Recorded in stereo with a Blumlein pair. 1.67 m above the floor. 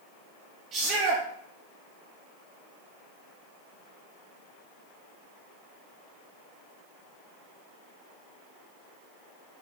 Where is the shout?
30° right, 1.3 m.